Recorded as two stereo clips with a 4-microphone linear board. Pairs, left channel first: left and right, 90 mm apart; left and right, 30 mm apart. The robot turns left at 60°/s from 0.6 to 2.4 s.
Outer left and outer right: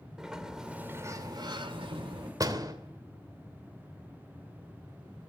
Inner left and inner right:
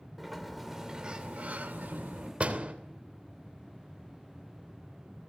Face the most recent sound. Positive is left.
turn(degrees=-45)  # may be behind; listen again after turning